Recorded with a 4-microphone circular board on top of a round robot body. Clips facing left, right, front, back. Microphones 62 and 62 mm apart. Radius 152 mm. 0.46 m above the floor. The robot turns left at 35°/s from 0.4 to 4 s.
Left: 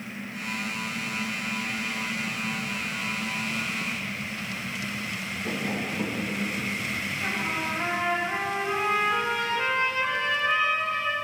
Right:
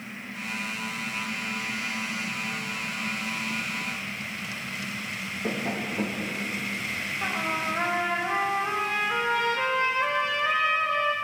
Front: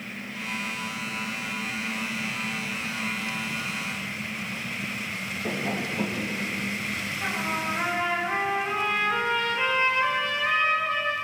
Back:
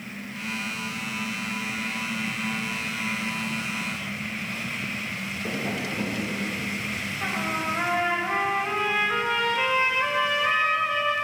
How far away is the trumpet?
About 4 m.